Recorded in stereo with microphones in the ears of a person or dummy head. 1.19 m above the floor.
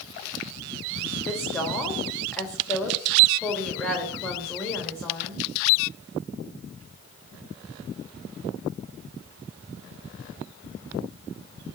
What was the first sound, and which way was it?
A woman speaking, 5° right (ahead or behind).